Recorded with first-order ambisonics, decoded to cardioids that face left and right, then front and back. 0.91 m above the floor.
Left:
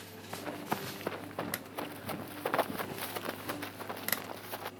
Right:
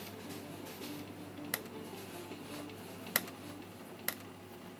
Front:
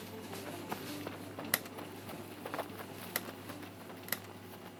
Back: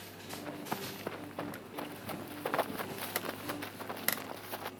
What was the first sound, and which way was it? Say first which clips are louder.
Running footsteps: left 9 dB, back 4 dB; 100° left.